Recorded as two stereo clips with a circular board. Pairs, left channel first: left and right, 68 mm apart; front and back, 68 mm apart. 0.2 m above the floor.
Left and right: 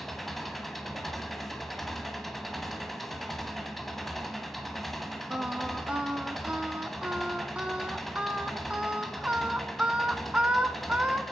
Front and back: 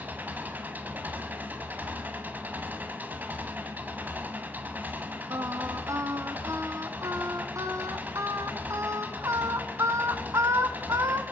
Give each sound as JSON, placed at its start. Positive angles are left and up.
{"t": 0.0, "sound": "an engine running", "azimuth_deg": 175, "distance_m": 1.3}
{"t": 5.3, "sound": "singing", "azimuth_deg": -160, "distance_m": 1.1}